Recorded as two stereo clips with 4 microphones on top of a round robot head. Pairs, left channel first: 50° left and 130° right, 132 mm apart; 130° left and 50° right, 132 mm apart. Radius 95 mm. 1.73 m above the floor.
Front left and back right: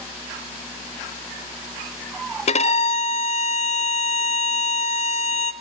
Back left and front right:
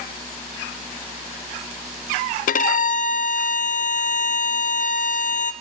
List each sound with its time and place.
2.5 s a violin: 95° left, 0.6 m